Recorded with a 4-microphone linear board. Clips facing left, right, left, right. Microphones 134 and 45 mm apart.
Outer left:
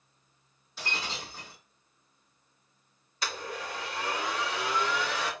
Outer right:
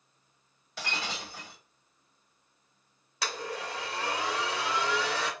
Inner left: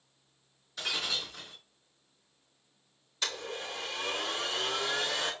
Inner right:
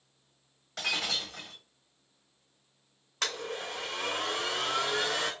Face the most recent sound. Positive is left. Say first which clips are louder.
# outer right 1 dB, inner right 2 dB
turn(degrees=-80)